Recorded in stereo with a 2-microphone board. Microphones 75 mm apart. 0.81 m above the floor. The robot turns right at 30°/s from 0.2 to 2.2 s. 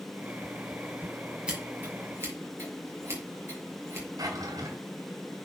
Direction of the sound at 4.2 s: 50° right (ahead or behind).